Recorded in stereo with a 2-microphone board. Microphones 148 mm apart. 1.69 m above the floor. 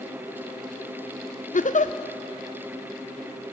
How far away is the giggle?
About 0.6 m.